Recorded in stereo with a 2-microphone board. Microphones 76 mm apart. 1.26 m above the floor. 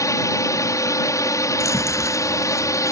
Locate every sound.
0.0 s a drone: 45° left (ahead or behind)
1.6 s chewing: 40° left (ahead or behind)